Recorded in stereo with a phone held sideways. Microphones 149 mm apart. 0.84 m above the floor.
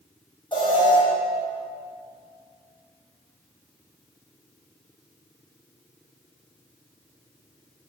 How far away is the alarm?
About 6 m.